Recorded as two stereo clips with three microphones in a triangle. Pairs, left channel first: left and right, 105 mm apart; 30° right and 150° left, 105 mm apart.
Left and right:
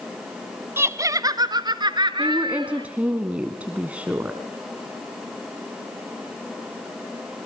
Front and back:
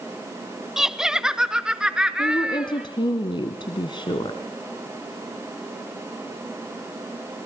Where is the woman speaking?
15° right, 1.6 m.